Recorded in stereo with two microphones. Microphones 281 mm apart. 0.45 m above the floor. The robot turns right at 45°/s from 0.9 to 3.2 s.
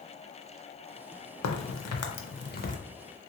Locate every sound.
1.4 s a crack: 75° left (ahead or behind), 0.5 m; by 2.8 s 25° left (ahead or behind), 0.5 m